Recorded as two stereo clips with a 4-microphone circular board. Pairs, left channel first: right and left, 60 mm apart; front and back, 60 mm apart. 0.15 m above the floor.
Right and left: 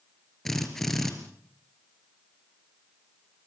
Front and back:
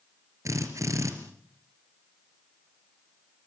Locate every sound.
0.5 s a drill: 175° right, 3 m